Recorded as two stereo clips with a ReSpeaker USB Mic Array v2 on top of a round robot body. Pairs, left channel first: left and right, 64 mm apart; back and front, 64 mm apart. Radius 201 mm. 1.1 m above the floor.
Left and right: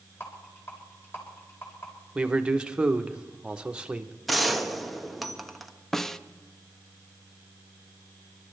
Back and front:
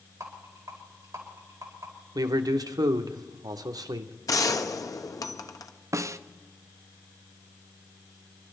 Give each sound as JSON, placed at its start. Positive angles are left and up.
{"t": 0.2, "sound": "a rattle", "azimuth_deg": 40, "distance_m": 4.5}
{"t": 2.1, "sound": "a man speaking", "azimuth_deg": -15, "distance_m": 0.9}
{"t": 4.3, "sound": "a gunshot", "azimuth_deg": 180, "distance_m": 1.3}
{"t": 5.9, "sound": "a snare drum", "azimuth_deg": 5, "distance_m": 0.8}